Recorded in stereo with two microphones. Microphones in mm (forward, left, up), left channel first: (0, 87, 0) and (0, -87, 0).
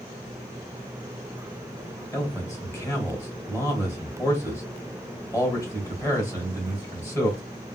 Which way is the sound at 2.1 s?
20° left (ahead or behind).